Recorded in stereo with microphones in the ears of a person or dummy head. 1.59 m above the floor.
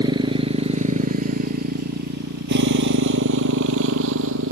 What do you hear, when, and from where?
0.0 s a motorcycle: 25° right (ahead or behind); by 4.5 s 75° right (ahead or behind)